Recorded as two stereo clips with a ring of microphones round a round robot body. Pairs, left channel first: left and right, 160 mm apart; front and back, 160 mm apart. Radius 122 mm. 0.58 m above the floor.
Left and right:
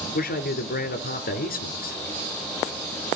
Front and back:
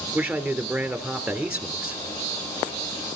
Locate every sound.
0.1 s a man speaking: 100° left, 2.5 m